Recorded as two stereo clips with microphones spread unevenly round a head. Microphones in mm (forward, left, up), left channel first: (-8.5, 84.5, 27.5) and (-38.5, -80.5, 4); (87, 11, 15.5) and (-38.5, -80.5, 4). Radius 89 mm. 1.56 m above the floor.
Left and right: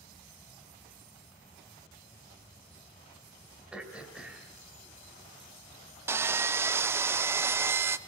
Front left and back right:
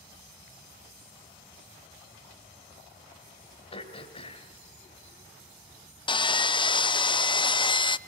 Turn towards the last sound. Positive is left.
turn(degrees=-25)